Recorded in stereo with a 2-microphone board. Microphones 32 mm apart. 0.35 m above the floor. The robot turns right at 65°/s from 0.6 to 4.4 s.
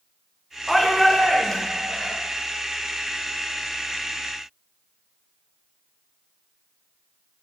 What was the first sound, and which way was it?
A shout, 10° right.